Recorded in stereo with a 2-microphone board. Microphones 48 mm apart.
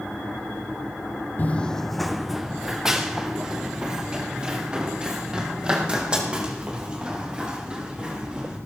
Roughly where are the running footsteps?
Left.